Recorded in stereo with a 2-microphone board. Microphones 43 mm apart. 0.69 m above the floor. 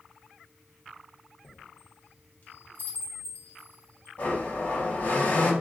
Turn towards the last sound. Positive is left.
turn(degrees=45)  # may be behind; listen again after turning